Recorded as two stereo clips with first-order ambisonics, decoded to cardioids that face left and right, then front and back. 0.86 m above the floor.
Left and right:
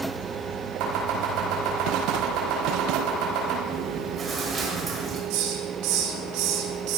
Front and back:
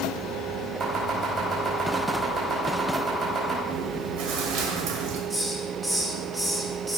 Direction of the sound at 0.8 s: 120° right.